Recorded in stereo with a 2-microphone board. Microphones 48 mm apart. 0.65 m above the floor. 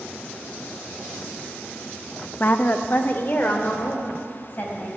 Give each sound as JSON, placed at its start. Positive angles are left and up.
{"t": 2.4, "sound": "a woman speaking", "side_deg": 40, "distance_m": 0.7}